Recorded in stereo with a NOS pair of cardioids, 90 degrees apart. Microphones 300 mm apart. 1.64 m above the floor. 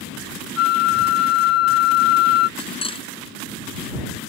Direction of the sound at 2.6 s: 20° left.